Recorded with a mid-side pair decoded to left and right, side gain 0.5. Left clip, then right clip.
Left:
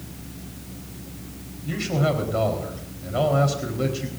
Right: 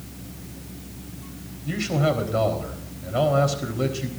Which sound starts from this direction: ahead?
A man speaking, at 1.6 s.